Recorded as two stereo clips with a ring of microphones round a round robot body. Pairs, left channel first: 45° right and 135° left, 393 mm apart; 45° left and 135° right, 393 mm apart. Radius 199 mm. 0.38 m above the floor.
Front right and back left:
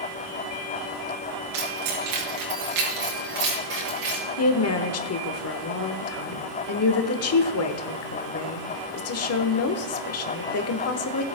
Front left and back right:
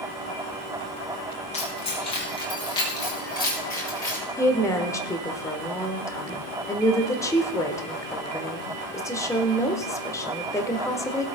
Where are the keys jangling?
120° left, 4.5 m; by 4.2 s 130° left, 5.5 m.